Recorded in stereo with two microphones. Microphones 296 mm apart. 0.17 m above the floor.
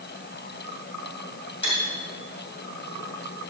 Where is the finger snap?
I don't hear a finger snap.